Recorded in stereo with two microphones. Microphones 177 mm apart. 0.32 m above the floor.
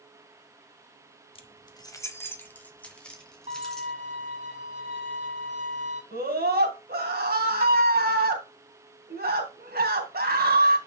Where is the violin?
40° right (ahead or behind), 2.5 m.